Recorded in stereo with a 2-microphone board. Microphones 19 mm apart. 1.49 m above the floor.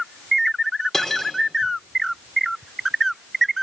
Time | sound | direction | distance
0.9 | cutlery clinking | 20° left (ahead or behind) | 3 m